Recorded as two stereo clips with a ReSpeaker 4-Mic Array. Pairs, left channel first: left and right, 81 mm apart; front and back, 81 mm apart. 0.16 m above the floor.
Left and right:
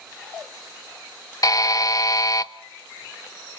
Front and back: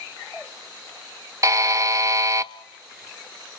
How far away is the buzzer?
About 0.7 m.